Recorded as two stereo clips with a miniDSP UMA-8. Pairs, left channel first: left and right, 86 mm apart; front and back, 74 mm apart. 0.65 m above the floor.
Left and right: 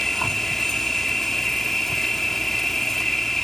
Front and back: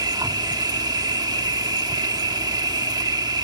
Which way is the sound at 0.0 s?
175° left.